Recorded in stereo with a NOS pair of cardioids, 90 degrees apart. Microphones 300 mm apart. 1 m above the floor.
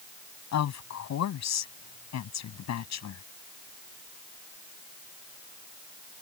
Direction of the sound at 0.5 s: 65° left.